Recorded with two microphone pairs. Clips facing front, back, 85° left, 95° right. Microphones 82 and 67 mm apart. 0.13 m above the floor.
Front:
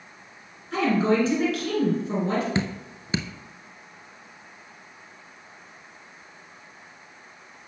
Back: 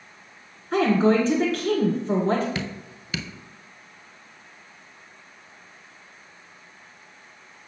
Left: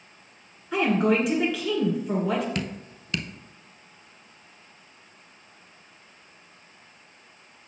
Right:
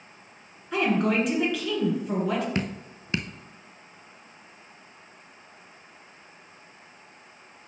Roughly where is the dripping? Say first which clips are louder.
Front 4 dB, right 2 dB; ahead right.